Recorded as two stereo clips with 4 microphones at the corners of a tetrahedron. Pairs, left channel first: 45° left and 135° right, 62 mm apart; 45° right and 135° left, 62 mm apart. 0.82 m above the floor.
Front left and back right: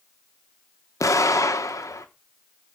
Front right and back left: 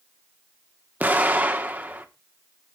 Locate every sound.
1.0 s an explosion: 75° left, 1.5 m